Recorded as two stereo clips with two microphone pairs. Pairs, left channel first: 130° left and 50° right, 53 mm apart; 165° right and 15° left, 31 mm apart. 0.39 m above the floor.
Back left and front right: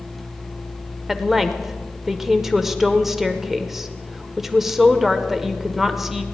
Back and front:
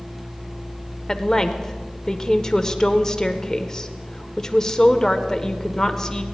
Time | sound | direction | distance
1.1 | a woman speaking | 130° right | 0.8 m